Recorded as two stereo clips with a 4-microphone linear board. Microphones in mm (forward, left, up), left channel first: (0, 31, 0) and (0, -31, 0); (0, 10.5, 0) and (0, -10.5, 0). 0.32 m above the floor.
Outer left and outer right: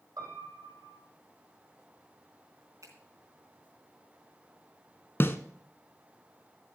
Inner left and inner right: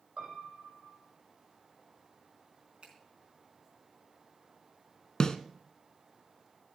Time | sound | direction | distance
0.2 | a piano | 85° right | 5.5 m
2.8 | a finger snap | 60° right (ahead or behind) | 3.5 m
5.2 | a snare drum | 35° left (ahead or behind) | 0.9 m